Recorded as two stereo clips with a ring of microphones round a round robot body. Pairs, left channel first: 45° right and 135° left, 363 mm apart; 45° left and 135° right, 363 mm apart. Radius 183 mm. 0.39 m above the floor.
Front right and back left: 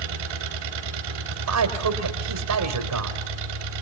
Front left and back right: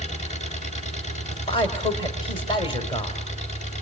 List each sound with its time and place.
0.0 s an engine running: 115° left, 2.5 m
1.3 s a man speaking: 115° left, 2.0 m